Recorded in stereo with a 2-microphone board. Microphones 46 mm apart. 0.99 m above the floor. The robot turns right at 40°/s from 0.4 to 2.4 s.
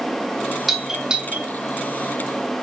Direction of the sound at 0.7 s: 5° right (ahead or behind).